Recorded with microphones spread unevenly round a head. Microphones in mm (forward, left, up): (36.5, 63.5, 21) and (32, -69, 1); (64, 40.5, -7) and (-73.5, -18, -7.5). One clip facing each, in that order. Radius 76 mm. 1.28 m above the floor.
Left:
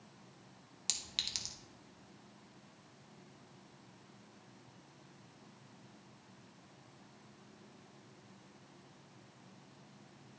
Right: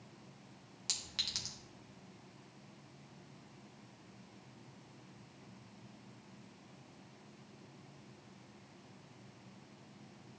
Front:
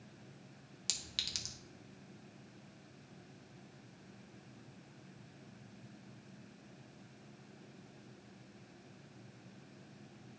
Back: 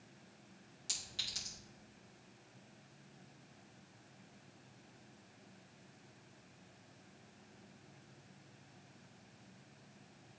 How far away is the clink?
About 1.0 m.